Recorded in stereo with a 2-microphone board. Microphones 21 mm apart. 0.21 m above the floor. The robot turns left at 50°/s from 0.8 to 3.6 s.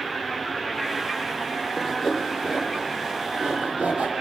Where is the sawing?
30° left (ahead or behind), 7.5 m; by 4.1 s 60° right (ahead or behind), 7.5 m.